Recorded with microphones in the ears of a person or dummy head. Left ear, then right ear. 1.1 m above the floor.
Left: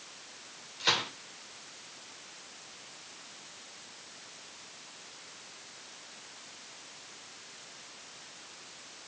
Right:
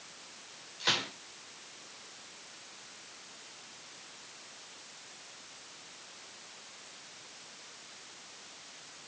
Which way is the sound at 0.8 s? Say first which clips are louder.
Left 2 dB; centre (ahead or behind).